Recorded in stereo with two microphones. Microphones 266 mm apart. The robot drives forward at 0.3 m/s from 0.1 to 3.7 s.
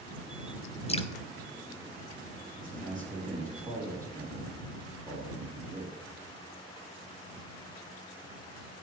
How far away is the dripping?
About 0.8 m.